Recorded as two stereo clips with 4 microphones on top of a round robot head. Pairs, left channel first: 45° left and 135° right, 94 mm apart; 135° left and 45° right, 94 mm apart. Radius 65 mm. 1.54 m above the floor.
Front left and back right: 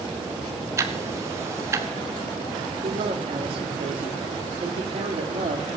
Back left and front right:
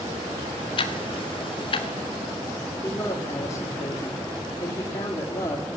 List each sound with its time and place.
0.8 s ticking: 165° left, 1.3 m
2.8 s a man speaking: 165° right, 3 m